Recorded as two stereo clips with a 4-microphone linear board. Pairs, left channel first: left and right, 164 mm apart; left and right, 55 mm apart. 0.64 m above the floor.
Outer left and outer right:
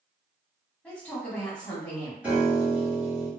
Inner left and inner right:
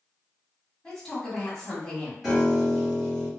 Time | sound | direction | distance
0.8 | a man speaking | 10° left (ahead or behind) | 1.4 m
2.2 | a piano | 10° right (ahead or behind) | 1.2 m